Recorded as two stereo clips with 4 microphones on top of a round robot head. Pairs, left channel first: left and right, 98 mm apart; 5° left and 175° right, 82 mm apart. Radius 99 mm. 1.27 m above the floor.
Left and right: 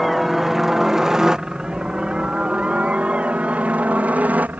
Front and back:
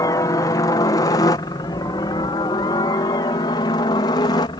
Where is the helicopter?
Straight ahead; by 4.6 s 20° right.